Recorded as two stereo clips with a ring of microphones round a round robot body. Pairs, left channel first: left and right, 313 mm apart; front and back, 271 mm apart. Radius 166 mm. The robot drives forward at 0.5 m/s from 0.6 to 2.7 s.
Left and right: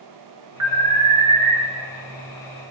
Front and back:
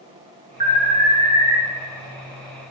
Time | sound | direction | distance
0.6 | an alarm | 115° right | 5 m